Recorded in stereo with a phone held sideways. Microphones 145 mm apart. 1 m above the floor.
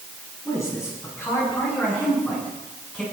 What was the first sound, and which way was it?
A man speaking, 20° left (ahead or behind).